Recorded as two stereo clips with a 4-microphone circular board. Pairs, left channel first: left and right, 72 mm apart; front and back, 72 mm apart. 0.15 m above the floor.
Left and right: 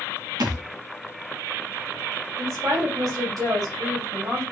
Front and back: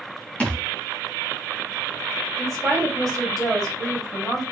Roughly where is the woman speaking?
Right.